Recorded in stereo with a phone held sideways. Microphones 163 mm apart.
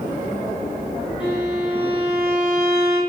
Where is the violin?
40° right (ahead or behind), 2.5 m.